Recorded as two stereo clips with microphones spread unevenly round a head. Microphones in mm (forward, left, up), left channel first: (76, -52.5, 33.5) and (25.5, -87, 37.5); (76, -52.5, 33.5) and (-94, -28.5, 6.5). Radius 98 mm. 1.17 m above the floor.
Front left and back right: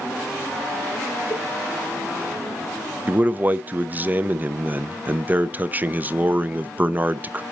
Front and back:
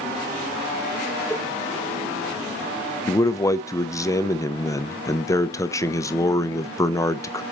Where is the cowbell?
40° left, 0.8 m.